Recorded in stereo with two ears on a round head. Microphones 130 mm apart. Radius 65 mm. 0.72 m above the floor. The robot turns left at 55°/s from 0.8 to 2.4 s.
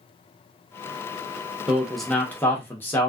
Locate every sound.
1.7 s a man speaking: 165° right, 0.8 m; by 3.1 s 155° left, 0.8 m